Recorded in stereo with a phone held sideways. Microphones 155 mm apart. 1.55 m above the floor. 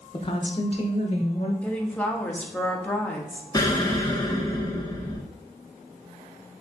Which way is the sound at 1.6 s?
10° left (ahead or behind).